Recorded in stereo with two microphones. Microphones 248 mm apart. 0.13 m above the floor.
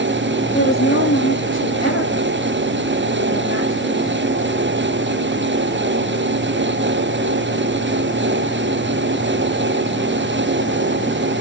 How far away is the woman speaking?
About 6 m.